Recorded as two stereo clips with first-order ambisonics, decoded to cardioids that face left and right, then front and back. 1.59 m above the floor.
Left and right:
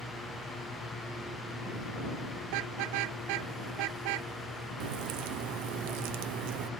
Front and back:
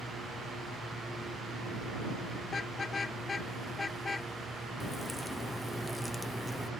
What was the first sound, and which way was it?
A car horn, 70° right.